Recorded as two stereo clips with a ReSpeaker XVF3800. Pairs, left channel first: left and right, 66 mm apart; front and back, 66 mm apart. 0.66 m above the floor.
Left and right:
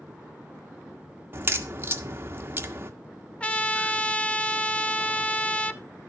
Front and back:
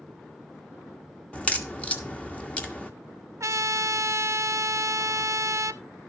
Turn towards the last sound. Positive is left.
turn(degrees=155)